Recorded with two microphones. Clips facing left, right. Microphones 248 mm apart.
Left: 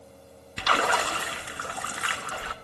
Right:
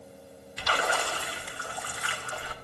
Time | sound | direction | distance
0.6 | a splash | 75° left (ahead or behind) | 0.7 m